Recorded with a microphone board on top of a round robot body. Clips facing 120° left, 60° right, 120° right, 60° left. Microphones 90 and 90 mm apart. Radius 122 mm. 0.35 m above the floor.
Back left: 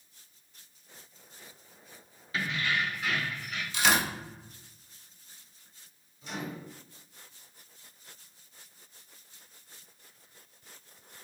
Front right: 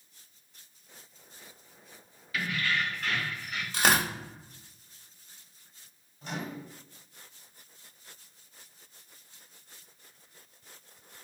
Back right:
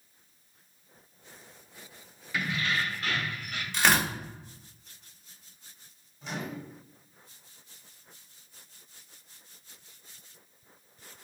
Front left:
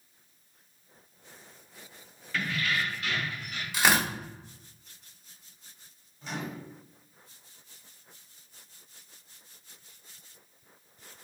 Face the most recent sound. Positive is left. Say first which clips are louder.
# front right 1 dB, even
turn(degrees=-35)